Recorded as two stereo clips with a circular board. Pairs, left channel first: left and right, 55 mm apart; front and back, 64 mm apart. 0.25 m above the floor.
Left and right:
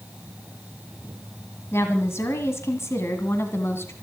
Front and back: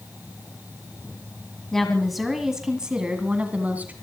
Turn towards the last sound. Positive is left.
turn(degrees=120)